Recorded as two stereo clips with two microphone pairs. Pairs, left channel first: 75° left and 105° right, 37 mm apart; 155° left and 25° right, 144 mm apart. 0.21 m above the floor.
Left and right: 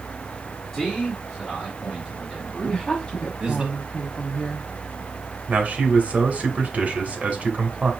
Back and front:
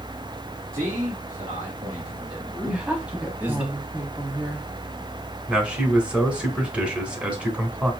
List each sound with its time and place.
0.7 s a man speaking: 5° left, 2.5 m; by 3.6 s 90° right, 1.3 m
2.6 s a woman speaking: 45° left, 1.0 m
5.5 s a man speaking: 100° right, 1.6 m